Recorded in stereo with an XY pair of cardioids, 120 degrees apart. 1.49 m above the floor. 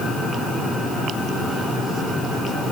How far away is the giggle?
I don't hear a giggle.